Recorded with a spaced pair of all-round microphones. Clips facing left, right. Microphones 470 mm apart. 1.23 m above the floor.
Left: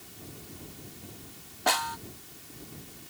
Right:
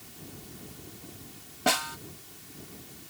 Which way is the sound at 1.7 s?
45° right (ahead or behind).